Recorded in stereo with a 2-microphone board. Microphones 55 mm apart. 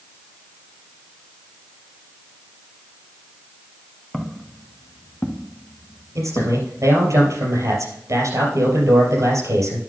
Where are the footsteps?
Centre (ahead or behind), 1.5 m; by 6.6 s 80° left, 1.4 m.